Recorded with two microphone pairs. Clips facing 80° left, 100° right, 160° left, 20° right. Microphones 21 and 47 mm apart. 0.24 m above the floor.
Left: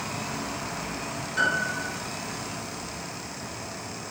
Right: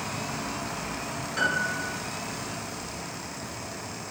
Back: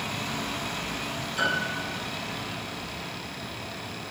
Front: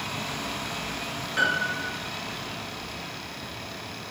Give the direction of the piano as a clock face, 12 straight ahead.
1 o'clock.